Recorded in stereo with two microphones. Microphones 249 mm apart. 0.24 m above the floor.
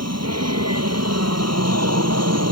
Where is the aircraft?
70° right (ahead or behind).